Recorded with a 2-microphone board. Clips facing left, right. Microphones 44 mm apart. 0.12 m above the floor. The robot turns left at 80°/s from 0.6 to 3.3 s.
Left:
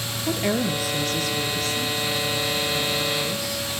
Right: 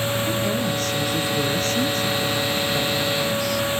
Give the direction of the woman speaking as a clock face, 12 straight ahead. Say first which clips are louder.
Right 1 dB; 11 o'clock.